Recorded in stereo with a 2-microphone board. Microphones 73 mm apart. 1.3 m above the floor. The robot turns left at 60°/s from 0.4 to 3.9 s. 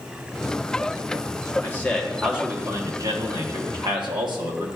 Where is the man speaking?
30° left, 1.2 m; by 4.7 s 105° right, 1.2 m.